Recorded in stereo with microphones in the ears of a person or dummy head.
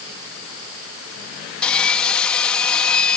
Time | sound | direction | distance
1.6 | sawing | 10° left (ahead or behind) | ?